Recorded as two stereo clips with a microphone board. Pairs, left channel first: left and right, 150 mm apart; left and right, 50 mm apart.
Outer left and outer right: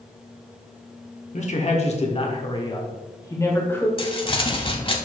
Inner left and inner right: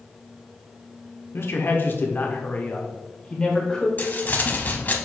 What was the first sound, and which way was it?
A man speaking, 50° left (ahead or behind).